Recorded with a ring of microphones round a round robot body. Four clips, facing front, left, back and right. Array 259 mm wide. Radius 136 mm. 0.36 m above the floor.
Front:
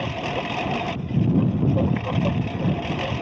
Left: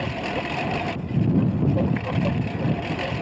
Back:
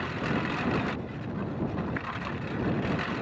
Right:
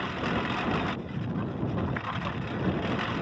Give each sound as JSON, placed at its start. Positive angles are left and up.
{"t": 0.0, "sound": "a lawn mower", "azimuth_deg": 40}